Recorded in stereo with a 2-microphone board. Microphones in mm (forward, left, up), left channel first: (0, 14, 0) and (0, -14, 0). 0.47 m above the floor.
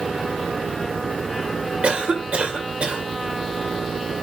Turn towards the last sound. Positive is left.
turn(degrees=-50)  # may be behind; listen again after turning